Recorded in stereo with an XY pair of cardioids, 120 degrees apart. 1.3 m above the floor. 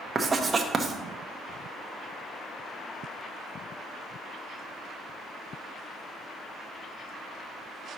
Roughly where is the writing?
Ahead.